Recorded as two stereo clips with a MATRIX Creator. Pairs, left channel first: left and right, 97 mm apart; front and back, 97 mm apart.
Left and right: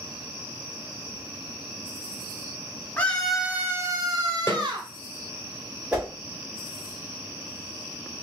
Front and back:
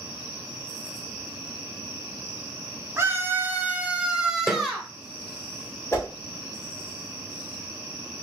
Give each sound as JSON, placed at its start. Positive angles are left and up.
{"t": 3.0, "sound": "a scream", "azimuth_deg": 150, "distance_m": 0.8}
{"t": 4.5, "sound": "a snare drum", "azimuth_deg": 85, "distance_m": 1.3}
{"t": 5.9, "sound": "a whoosh", "azimuth_deg": -30, "distance_m": 1.6}